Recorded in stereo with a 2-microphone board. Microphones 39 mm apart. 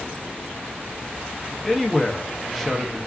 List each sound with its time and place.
1.6 s a man speaking: centre (ahead or behind), 0.6 m